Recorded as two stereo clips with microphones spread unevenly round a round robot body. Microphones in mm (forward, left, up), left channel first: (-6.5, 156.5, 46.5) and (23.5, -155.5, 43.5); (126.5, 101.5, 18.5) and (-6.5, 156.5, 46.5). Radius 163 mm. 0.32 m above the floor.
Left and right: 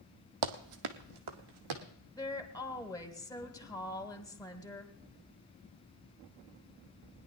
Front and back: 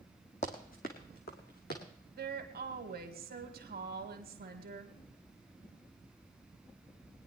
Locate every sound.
0.4 s running footsteps: 95° right, 1.0 m; by 1.8 s 75° right, 1.6 m
2.1 s a woman speaking: 175° left, 1.9 m